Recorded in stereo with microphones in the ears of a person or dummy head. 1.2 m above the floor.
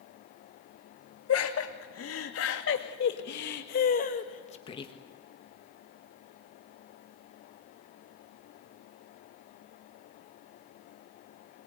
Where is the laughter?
75° left (ahead or behind), 2.5 m; by 4.9 s 25° left (ahead or behind), 1.5 m.